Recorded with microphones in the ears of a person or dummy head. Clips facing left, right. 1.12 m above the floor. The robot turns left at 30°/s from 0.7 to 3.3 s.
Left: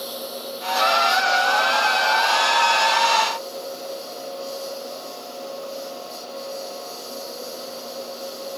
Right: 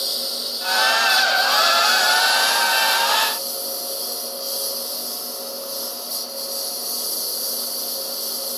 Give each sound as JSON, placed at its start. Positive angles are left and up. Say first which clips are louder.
{"t": 0.0, "sound": "a lawn mower", "louder": "left 2 dB", "azimuth_deg": -25}